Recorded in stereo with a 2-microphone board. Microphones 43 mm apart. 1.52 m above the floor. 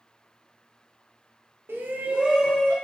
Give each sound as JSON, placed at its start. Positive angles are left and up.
{"t": 1.7, "sound": "a shout", "side_deg": -65, "distance_m": 0.8}